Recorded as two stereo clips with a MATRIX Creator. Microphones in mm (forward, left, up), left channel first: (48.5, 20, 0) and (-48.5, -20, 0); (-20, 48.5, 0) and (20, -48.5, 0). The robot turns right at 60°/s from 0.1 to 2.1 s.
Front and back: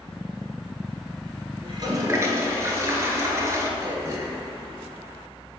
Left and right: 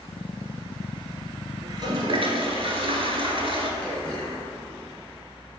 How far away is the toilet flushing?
About 0.9 m.